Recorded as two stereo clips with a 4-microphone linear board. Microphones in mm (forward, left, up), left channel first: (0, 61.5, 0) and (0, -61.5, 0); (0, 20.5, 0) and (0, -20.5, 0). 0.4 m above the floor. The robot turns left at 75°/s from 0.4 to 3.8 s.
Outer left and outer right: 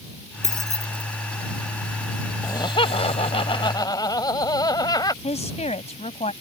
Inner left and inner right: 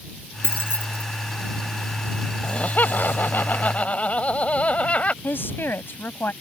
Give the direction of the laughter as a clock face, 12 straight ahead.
7 o'clock.